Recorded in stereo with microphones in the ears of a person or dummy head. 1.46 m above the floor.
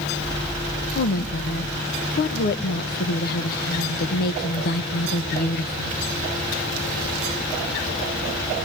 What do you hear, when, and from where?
0.9 s a woman speaking: 55° left (ahead or behind), 1.0 m